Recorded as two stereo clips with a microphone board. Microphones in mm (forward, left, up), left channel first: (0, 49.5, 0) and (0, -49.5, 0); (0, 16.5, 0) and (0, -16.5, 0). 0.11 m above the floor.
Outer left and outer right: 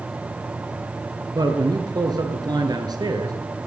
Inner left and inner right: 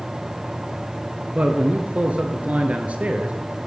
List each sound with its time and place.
1.4 s a man speaking: 45° right (ahead or behind), 1.7 m